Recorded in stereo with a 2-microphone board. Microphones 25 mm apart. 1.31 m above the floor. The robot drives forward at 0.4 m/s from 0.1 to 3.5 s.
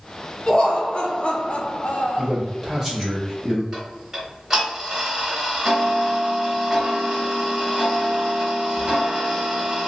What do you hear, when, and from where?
0.5 s laughter: 35° left (ahead or behind), 0.9 m; by 2.3 s 65° left (ahead or behind), 0.6 m
2.2 s a man speaking: 5° left (ahead or behind), 1.1 m
3.7 s ticking: 15° right (ahead or behind), 1.3 m